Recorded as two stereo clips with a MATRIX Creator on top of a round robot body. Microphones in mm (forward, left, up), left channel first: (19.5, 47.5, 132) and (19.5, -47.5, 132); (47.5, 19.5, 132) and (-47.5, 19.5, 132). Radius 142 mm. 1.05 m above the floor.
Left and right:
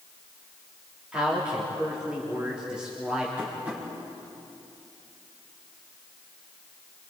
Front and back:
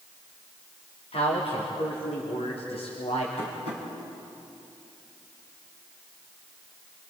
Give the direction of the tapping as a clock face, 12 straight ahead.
1 o'clock.